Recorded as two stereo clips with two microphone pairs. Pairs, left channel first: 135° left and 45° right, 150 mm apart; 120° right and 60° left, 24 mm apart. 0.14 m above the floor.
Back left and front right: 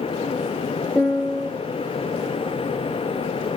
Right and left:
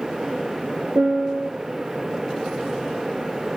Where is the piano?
45° left, 1.9 m.